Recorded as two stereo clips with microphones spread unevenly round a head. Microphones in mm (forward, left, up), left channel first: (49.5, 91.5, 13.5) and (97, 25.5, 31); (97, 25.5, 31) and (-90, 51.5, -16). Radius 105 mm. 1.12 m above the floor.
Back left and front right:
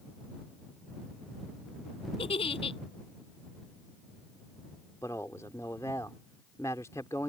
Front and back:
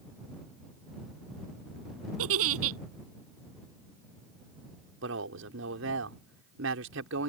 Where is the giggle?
165° left.